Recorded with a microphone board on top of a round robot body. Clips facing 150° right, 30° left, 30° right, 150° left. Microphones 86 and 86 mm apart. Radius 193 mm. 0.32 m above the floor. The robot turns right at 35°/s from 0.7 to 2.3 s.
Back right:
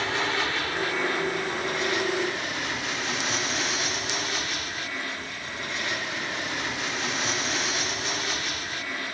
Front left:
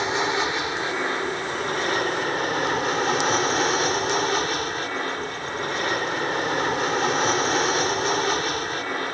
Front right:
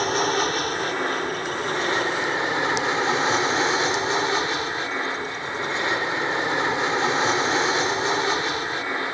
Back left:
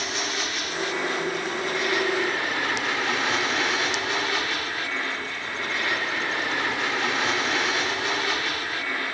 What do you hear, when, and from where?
0.0 s an aircraft: 30° right; by 9.2 s 25° left